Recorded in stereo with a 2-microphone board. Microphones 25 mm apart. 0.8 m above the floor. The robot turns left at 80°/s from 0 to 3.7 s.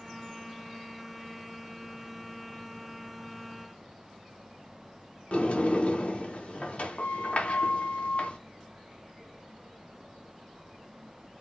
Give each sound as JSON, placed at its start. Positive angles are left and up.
{"t": 5.3, "sound": "a sliding door", "side_deg": 55, "distance_m": 0.5}